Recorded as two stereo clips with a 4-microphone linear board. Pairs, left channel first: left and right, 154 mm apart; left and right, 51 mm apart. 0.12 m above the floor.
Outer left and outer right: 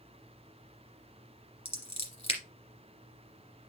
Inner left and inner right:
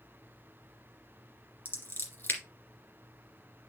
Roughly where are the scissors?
Left.